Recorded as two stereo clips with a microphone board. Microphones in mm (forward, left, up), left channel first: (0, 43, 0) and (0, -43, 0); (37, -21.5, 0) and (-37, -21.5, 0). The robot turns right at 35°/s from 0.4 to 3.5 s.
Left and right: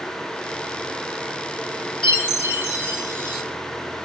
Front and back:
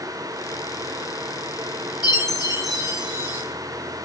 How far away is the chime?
About 1.4 m.